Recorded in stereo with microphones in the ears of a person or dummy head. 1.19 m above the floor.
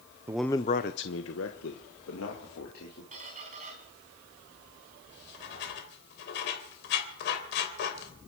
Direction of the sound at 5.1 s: 60° left (ahead or behind).